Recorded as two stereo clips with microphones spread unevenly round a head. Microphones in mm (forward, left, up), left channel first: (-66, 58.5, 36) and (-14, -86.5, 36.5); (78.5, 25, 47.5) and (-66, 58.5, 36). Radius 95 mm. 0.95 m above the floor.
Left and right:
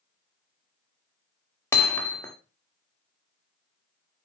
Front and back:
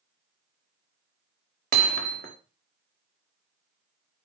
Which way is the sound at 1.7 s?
175° right.